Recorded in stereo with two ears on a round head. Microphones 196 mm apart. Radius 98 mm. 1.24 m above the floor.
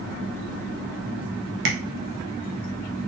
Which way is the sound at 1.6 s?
55° right (ahead or behind).